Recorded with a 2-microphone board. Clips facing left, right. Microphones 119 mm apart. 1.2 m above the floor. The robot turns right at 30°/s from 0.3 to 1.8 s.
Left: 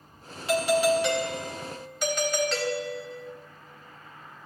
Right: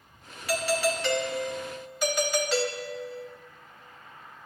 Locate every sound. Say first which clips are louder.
0.5 s a doorbell: left 5 dB; 145° left, 0.9 m; by 3.3 s 175° right, 0.9 m